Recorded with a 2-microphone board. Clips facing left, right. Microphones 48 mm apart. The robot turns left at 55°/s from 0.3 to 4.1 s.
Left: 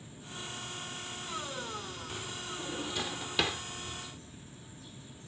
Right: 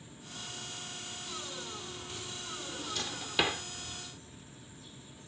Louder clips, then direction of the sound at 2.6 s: Left 3 dB; 35° left (ahead or behind).